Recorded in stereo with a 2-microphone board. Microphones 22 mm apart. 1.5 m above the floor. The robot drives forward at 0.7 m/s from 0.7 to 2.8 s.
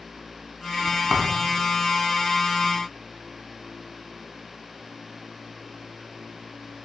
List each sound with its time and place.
1.1 s a thud: 10° right (ahead or behind), 2 m